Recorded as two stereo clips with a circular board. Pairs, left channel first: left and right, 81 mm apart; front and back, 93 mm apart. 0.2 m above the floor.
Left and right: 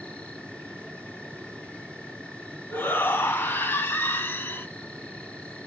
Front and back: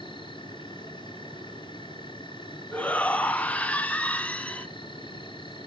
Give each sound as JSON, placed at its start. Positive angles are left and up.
{"t": 0.0, "sound": "an insect", "azimuth_deg": 20, "distance_m": 3.5}
{"t": 2.7, "sound": "a shout", "azimuth_deg": 60, "distance_m": 1.6}